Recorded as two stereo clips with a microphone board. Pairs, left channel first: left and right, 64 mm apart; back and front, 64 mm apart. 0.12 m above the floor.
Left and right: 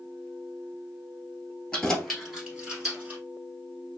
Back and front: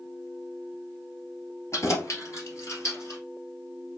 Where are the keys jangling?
165° left, 1.6 m; by 3.2 s 150° right, 2 m.